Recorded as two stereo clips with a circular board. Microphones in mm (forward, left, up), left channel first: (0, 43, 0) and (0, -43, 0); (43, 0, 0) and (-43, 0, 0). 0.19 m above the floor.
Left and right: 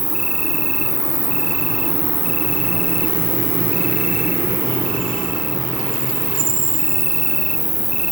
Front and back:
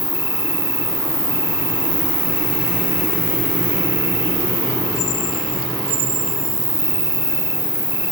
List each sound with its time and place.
0.0 s an insect: straight ahead, 0.8 m